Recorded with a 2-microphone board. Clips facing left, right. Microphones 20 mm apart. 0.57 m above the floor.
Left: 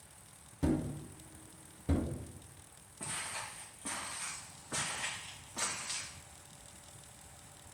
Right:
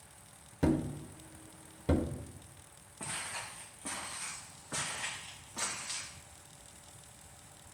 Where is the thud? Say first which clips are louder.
Right 3 dB; 65° right (ahead or behind), 0.6 m.